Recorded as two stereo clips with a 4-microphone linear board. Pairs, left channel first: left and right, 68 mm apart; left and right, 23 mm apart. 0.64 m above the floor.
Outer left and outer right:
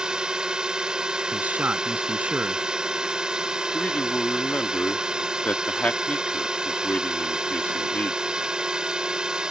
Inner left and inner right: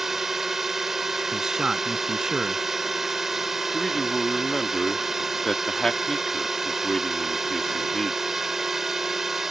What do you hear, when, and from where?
0.0 s a drone: 15° right (ahead or behind)
1.3 s a man speaking: 25° right (ahead or behind)
3.7 s a man speaking: 25° left (ahead or behind)